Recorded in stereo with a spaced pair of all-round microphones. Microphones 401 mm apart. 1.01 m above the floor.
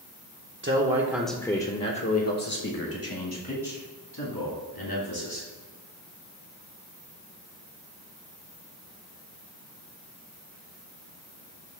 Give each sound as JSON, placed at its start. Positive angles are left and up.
{"t": 0.6, "sound": "a man speaking", "side_deg": -30, "distance_m": 0.6}